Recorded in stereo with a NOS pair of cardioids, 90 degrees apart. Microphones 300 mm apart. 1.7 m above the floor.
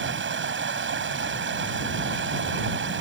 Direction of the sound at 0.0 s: 40° right.